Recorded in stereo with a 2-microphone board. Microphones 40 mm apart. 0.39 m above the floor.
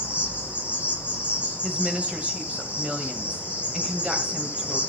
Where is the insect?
35° right (ahead or behind), 3 m.